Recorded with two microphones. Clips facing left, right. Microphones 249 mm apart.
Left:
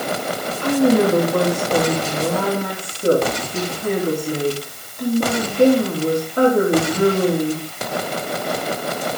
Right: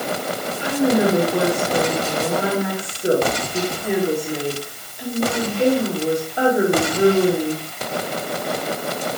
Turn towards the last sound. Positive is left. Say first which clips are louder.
# left 3 dB
turn(degrees=70)  # may be behind; listen again after turning